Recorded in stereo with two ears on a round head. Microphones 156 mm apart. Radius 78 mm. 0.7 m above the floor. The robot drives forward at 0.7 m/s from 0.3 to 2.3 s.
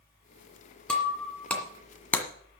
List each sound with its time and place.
0.9 s breaking glass: 5° left (ahead or behind), 2.5 m; by 2.3 s 10° left (ahead or behind), 1.3 m